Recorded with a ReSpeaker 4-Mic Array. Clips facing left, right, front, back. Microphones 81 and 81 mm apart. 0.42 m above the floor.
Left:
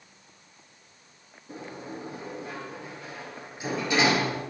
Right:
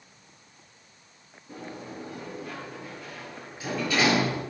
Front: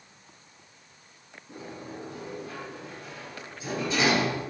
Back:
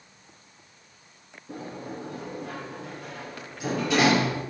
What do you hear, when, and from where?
1.5 s a sliding door: 165° left, 9.5 m